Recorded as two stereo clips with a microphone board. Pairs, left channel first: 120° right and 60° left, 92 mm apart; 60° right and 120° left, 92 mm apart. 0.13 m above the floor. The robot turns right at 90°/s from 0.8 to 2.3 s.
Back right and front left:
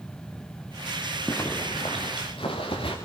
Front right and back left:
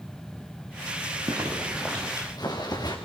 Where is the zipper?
165° left, 4.5 m; by 3.0 s 105° right, 4.5 m.